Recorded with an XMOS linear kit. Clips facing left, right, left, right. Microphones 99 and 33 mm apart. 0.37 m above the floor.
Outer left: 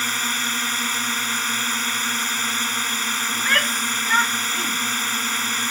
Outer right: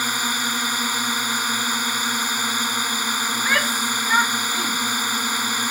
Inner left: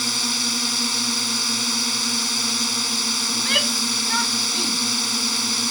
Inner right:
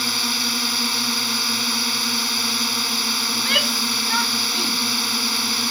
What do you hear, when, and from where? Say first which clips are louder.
0.0 s a drone: outer right 2 dB, inner right 1 dB; 15° right (ahead or behind)
3.3 s a shout: even, inner right 1 dB; 5° right (ahead or behind)